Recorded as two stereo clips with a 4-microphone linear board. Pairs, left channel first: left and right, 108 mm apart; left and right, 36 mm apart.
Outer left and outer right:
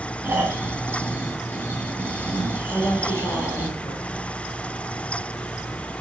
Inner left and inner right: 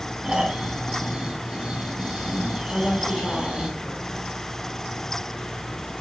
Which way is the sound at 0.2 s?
20° right (ahead or behind).